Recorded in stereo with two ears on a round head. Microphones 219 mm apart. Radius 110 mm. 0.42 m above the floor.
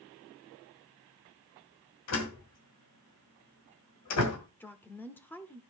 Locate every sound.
2.1 s a door slam: 65° left (ahead or behind), 2.0 m
4.6 s a woman speaking: 10° left (ahead or behind), 0.8 m